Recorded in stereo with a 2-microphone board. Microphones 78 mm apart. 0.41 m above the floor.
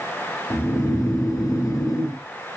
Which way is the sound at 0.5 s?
50° left (ahead or behind).